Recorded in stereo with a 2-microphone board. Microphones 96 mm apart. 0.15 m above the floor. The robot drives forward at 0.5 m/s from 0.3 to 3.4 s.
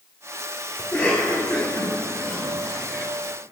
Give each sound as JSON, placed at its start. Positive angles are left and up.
{"t": 0.8, "sound": "a cough", "side_deg": 25, "distance_m": 3.5}